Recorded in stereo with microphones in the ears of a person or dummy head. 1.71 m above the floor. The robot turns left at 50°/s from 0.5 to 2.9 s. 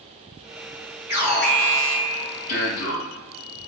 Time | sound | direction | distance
1.1 | an alarm | 160° right | 4.5 m